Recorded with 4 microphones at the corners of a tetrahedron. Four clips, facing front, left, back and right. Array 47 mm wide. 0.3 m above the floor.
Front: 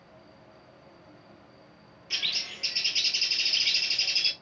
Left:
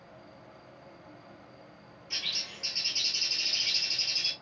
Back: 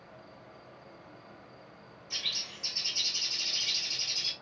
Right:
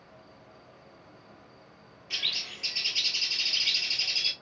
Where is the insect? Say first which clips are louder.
Left 2 dB, back 2 dB; 155° left, 1.2 m.